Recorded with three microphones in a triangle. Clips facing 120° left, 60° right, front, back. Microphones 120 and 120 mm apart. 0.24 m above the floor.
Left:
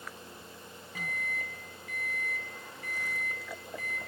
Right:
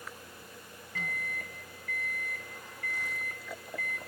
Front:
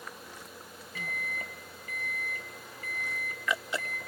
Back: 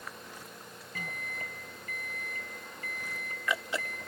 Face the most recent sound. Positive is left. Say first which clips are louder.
# left 1 dB, front 3 dB
turn(degrees=-165)